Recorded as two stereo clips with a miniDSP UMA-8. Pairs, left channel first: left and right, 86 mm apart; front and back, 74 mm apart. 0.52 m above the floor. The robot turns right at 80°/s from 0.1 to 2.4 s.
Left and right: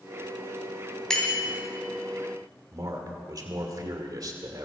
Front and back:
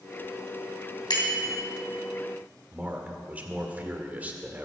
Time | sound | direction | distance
1.1 | a bicycle bell | 5° left | 2.5 m
2.7 | a man speaking | 115° right | 1.9 m